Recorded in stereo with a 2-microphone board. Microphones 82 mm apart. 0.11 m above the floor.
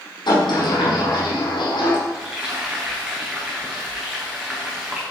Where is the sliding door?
65° left (ahead or behind), 5 m.